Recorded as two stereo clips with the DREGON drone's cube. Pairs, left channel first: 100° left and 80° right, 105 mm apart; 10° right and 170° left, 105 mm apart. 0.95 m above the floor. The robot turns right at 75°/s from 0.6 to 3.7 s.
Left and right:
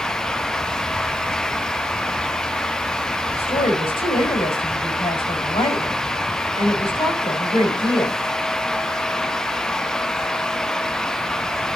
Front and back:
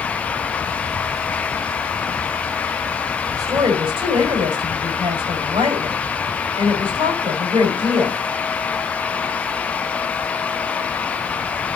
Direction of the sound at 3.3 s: 110° left.